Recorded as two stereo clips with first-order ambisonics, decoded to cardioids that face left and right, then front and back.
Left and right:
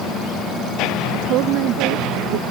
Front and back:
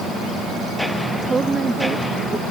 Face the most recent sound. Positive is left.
turn(degrees=-110)